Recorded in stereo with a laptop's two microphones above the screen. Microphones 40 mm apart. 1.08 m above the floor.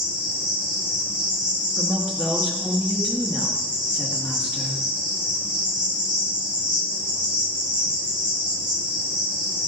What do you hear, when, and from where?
0.0 s an insect: 20° right (ahead or behind), 2 m
1.8 s a woman speaking: 25° right (ahead or behind), 1.4 m